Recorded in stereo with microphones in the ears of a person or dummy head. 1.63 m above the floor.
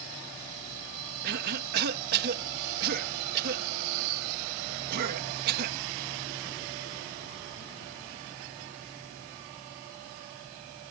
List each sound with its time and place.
1.2 s a cough: 55° right (ahead or behind)